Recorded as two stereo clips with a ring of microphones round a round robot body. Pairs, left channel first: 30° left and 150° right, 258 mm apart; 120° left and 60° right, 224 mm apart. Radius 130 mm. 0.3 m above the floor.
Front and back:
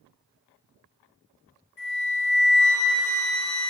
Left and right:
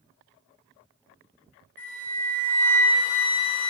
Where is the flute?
35° left, 2.5 m.